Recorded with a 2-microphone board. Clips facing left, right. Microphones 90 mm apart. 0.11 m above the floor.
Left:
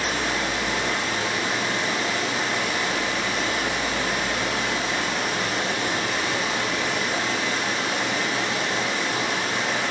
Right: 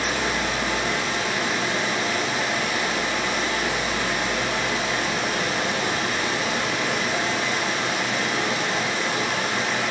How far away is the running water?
About 6 m.